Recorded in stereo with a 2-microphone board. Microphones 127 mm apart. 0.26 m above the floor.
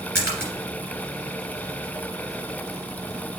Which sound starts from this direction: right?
A splash, at 0.1 s.